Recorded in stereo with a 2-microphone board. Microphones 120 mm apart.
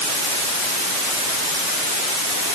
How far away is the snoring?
I don't hear snoring.